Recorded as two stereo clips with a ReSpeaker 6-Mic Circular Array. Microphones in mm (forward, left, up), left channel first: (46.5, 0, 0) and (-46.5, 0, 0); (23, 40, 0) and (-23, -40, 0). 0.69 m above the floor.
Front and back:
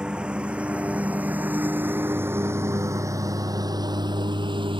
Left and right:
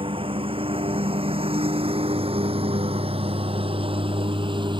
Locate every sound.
0.0 s a lawn mower: 100° right; by 4.8 s 155° right